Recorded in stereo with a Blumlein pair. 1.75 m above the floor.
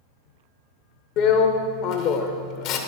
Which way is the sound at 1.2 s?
40° left.